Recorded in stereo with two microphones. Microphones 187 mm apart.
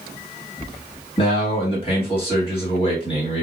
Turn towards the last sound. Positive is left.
turn(degrees=30)  # may be behind; listen again after turning